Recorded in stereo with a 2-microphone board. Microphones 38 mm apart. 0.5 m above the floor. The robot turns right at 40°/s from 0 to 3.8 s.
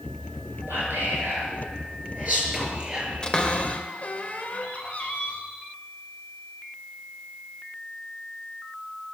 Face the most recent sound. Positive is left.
turn(degrees=40)  # may be behind; listen again after turning